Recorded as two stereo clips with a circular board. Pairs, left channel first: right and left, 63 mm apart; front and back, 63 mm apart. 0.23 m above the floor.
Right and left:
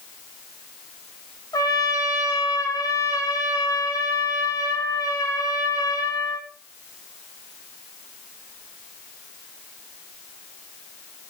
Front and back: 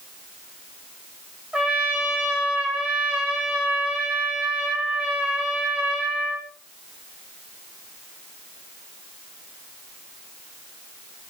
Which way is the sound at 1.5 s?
105° right.